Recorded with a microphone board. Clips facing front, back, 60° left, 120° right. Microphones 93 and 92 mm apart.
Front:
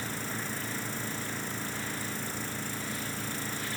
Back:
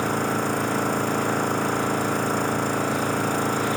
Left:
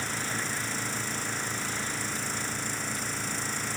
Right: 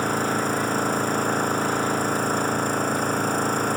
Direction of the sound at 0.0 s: 160° right.